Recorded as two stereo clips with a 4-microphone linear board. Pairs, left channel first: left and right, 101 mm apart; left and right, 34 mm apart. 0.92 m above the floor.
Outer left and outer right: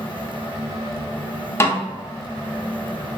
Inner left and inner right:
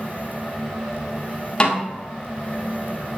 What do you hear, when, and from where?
1.6 s a snare drum: 25° left (ahead or behind), 2.0 m